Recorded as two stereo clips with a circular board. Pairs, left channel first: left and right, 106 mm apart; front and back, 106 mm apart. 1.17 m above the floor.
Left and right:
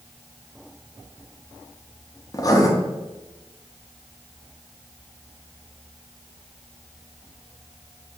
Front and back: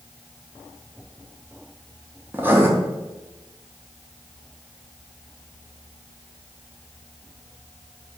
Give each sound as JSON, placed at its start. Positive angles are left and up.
{"t": 2.3, "sound": "writing", "azimuth_deg": 120, "distance_m": 0.6}